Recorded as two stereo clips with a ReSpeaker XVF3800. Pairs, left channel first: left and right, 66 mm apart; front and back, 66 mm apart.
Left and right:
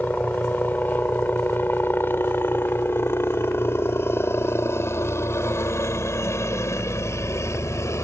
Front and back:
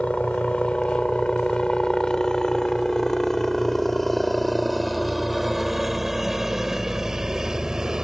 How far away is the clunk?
No clunk in this recording.